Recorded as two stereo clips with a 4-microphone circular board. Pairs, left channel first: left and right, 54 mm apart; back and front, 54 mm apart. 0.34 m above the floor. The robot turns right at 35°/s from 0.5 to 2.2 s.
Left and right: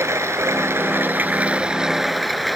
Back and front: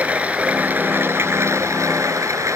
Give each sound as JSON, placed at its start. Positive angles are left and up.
{"t": 0.0, "sound": "running water", "azimuth_deg": -60}